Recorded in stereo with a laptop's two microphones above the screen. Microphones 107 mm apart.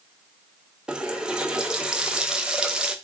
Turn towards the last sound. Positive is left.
turn(degrees=-5)  # may be behind; listen again after turning